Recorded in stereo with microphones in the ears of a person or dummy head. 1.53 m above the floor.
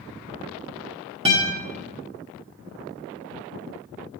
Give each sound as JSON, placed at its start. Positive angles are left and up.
{"t": 1.2, "sound": "a guitar", "side_deg": -25, "distance_m": 1.1}